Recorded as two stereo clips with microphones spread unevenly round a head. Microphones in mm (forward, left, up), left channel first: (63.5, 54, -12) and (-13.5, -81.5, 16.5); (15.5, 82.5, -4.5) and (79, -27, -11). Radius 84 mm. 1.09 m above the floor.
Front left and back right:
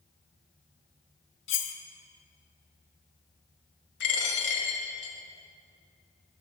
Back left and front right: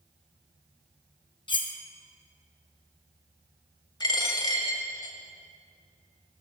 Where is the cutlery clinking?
70° left, 0.8 m.